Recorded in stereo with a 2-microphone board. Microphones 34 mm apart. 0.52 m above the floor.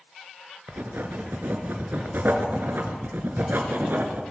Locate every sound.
0.7 s writing: 75° right (ahead or behind), 1.7 m